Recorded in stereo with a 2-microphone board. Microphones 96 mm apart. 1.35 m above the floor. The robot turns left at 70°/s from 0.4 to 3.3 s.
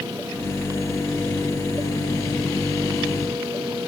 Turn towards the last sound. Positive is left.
No sound to turn to.